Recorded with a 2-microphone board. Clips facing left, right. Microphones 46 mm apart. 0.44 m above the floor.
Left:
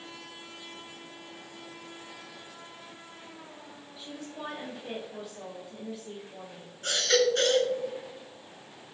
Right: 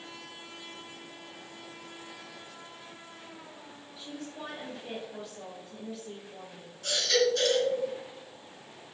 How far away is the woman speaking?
About 1.9 m.